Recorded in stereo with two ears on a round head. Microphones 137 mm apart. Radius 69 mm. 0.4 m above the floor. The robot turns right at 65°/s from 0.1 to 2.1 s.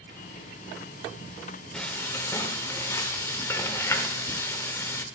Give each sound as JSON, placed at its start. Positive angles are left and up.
{"t": 1.7, "sound": "frying", "side_deg": 5, "distance_m": 1.0}